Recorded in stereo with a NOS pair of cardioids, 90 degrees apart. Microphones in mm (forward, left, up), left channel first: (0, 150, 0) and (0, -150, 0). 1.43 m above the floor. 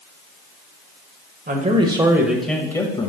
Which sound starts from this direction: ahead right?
A man speaking, at 1.5 s.